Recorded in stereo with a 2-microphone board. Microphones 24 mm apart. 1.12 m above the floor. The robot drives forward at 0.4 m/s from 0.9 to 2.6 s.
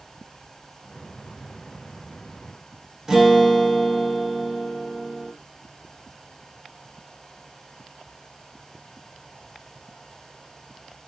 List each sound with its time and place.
3.1 s a guitar: 15° right (ahead or behind), 0.6 m